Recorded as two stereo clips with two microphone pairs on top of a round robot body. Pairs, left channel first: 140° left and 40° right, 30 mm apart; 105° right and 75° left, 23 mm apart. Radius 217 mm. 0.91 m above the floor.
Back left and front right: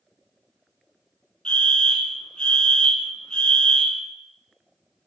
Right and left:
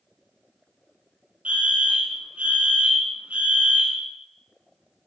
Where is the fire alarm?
80° left, 2.0 m.